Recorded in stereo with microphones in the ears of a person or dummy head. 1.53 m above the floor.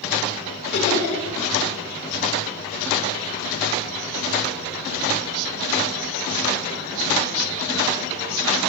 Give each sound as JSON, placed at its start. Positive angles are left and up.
{"t": 0.7, "sound": "laughter", "side_deg": 55, "distance_m": 2.5}